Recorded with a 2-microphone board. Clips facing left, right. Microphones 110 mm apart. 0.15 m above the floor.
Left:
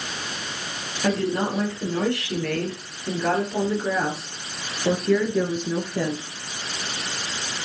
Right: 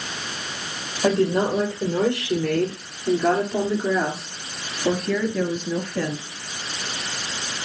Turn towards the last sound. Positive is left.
turn(degrees=20)  # may be behind; listen again after turning